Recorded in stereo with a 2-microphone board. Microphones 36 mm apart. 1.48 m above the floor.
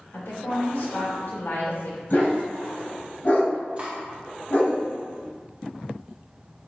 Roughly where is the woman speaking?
Left.